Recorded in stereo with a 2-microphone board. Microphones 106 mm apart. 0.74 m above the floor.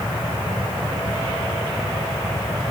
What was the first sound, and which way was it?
Only background noise.